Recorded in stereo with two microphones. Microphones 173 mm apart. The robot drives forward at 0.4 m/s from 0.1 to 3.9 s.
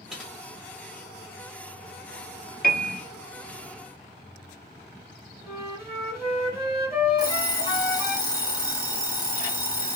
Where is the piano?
55° left (ahead or behind), 0.6 m; by 3.0 s 50° left (ahead or behind), 0.7 m.